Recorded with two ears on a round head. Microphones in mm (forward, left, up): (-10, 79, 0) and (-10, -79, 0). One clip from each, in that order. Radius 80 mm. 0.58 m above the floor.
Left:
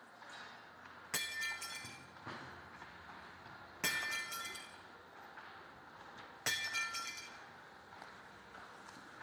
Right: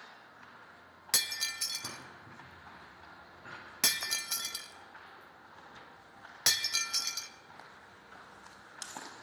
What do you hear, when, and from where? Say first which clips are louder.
1.1 s breaking glass: right 7 dB; 70° right (ahead or behind), 1.6 m